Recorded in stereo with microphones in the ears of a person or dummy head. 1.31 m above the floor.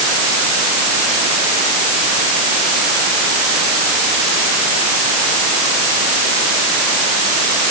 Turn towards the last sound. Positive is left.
No sound to turn to.